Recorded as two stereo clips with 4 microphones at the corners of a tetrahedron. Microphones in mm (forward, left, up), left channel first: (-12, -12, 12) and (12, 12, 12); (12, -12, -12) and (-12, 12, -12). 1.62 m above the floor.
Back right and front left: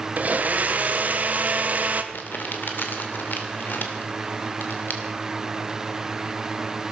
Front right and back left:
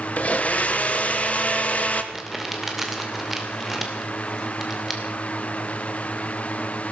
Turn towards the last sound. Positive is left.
turn(degrees=-135)